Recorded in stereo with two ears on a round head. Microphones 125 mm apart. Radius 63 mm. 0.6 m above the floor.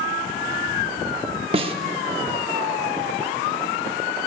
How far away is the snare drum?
About 1.0 m.